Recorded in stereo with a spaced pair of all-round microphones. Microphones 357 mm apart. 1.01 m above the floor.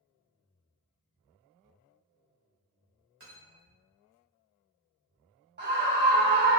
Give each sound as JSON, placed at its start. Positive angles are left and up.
{"t": 3.2, "sound": "cutlery clinking", "side_deg": -40, "distance_m": 1.7}
{"t": 5.6, "sound": "a scream", "side_deg": -30, "distance_m": 1.2}